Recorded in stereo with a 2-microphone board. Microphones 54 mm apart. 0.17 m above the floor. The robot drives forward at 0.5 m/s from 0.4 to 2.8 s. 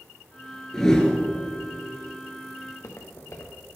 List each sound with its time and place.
0.7 s a whoosh: 10° left (ahead or behind), 0.9 m; by 1.2 s 15° left (ahead or behind), 0.7 m
2.6 s footsteps: 60° left (ahead or behind), 1.3 m